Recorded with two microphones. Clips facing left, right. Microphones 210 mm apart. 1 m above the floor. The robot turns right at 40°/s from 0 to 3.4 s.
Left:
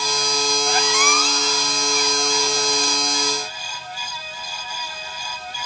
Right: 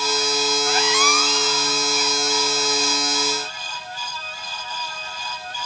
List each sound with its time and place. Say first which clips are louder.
0.7 s a squeak: even; 35° left (ahead or behind), 1.3 m; by 3.0 s 50° left (ahead or behind), 1.3 m